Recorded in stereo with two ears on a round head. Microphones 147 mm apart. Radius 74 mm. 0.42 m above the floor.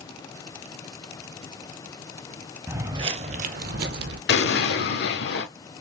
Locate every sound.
2.7 s footsteps: 15° right (ahead or behind), 0.6 m; by 4.2 s 70° right (ahead or behind), 1.0 m
4.3 s an explosion: 75° left (ahead or behind), 1.0 m